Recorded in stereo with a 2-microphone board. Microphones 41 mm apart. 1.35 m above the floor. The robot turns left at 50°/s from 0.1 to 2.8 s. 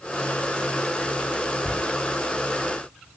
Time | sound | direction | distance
1.6 | a cupboard door | 60° left (ahead or behind) | 3 m